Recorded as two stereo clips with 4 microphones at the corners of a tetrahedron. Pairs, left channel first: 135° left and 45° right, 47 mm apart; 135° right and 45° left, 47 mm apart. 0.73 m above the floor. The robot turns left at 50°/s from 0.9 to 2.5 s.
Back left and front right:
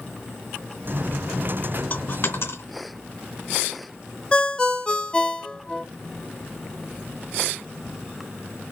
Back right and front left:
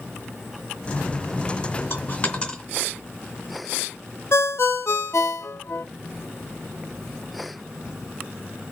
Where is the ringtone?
155° right, 0.6 m.